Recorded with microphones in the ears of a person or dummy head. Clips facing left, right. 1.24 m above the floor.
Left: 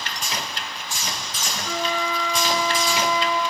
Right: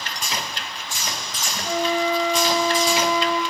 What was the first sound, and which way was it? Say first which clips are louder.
A flute: right 5 dB; 30° right (ahead or behind).